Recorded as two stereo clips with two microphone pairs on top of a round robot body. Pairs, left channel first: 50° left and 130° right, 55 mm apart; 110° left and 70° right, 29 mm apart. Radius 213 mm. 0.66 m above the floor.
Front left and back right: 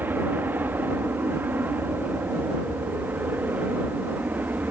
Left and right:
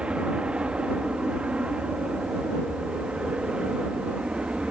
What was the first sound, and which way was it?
An aircraft, 100° right.